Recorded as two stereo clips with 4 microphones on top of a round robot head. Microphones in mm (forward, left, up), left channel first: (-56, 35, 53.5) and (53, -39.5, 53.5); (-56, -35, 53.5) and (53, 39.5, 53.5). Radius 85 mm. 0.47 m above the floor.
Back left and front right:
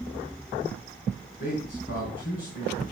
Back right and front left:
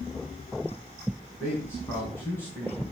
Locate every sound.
1.4 s a man speaking: 140° left, 4.5 m